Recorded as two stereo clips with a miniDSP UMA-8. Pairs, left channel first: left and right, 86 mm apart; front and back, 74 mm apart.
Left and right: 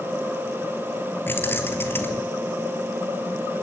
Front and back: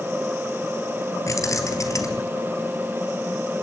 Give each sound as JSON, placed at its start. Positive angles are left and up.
{"t": 1.3, "sound": "keys jangling", "azimuth_deg": 30, "distance_m": 1.9}